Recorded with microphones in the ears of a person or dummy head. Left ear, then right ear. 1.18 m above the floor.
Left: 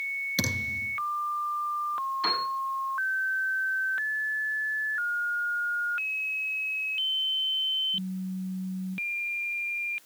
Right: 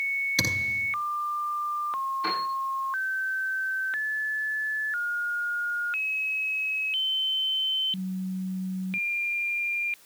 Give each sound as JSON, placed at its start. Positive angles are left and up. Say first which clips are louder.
{"t": 0.4, "sound": "a thud", "louder": "right 4 dB", "side_deg": 5, "distance_m": 9.5}
{"t": 2.2, "sound": "a piano", "louder": "left 3 dB", "side_deg": 65, "distance_m": 9.5}